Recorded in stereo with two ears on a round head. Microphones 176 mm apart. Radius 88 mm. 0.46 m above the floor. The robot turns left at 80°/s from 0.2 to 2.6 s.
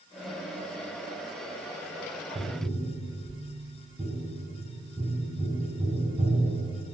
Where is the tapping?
35° right (ahead or behind), 0.7 m; by 6.7 s 15° right (ahead or behind), 0.7 m.